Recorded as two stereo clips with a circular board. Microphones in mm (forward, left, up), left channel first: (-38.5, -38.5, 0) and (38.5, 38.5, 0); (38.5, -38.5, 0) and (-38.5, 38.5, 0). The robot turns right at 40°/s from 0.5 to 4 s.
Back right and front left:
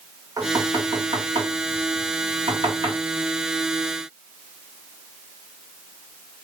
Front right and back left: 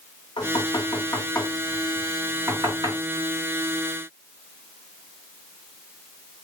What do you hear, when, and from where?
0.4 s knocking: 15° right, 2.5 m; by 3.0 s 85° left, 2.5 m